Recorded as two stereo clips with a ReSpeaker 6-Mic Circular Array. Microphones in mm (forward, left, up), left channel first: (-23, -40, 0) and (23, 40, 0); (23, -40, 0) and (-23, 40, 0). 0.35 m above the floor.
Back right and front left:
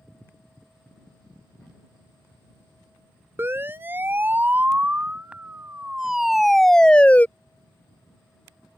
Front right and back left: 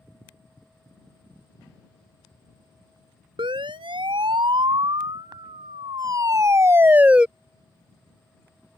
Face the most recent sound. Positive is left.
turn(degrees=-170)